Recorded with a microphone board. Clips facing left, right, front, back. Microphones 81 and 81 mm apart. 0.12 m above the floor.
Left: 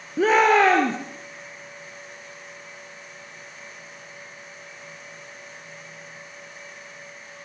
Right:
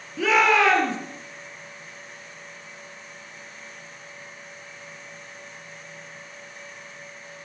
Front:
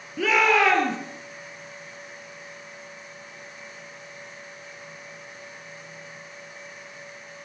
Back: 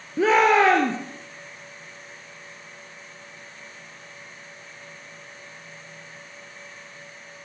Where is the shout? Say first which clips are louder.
Left 3 dB, back 3 dB; 130° left, 2.5 m.